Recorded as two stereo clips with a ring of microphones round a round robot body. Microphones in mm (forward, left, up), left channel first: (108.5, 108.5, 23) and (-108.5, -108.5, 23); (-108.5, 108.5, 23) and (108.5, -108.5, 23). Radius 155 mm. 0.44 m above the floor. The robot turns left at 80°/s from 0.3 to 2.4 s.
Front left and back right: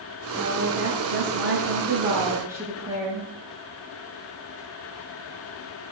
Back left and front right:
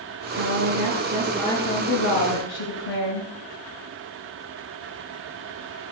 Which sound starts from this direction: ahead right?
A woman speaking, at 0.3 s.